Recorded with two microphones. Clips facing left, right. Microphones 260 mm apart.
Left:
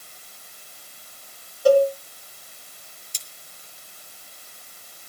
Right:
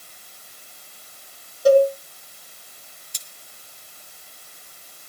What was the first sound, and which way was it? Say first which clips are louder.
A cowbell: right 2 dB; 25° right (ahead or behind).